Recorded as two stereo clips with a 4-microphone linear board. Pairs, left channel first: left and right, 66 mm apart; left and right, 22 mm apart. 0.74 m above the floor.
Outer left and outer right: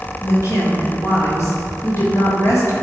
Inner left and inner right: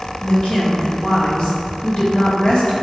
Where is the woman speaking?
50° left (ahead or behind), 1.9 m.